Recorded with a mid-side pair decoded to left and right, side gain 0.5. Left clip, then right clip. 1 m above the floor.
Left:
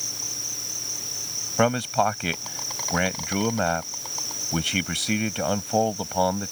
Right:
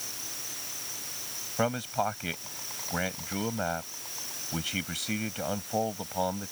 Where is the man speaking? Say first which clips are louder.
Left 7 dB; 50° left.